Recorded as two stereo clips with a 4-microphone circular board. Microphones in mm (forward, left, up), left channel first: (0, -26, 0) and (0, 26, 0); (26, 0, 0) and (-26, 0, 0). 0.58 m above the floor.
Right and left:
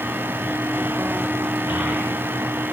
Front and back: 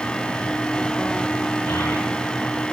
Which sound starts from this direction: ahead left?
A child speaking, at 1.7 s.